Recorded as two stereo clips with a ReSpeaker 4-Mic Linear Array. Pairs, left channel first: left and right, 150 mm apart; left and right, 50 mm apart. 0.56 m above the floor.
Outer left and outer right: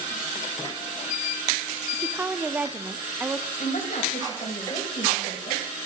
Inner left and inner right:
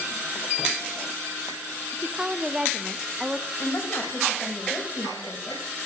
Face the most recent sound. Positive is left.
turn(degrees=55)  # may be behind; listen again after turning